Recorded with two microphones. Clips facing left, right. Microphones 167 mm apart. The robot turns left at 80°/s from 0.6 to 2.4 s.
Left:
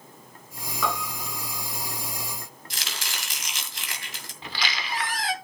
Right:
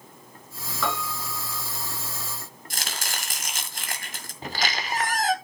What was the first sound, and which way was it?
A piano, 10° left (ahead or behind).